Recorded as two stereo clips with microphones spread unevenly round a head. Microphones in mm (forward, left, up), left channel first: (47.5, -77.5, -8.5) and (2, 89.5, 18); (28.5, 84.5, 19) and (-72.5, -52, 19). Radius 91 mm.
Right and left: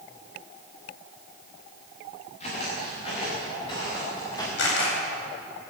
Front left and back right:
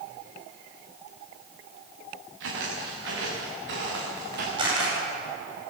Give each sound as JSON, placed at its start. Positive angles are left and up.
{"t": 2.4, "sound": "footsteps", "azimuth_deg": -135, "distance_m": 8.5}
{"t": 4.6, "sound": "a camera shutter", "azimuth_deg": -60, "distance_m": 9.0}